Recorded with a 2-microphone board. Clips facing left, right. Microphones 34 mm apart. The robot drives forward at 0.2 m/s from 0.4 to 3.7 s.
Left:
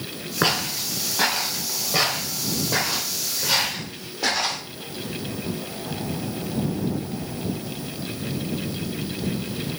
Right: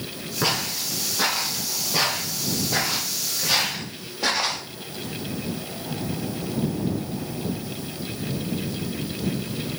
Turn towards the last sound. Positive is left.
turn(degrees=-5)  # may be behind; listen again after turning